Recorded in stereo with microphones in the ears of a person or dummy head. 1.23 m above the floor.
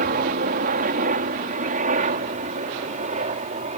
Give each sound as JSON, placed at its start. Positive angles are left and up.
{"t": 0.0, "sound": "a helicopter", "side_deg": -40}